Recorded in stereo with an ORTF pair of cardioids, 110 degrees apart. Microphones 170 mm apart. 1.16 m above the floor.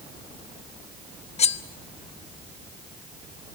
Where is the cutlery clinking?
40° left, 1.1 m.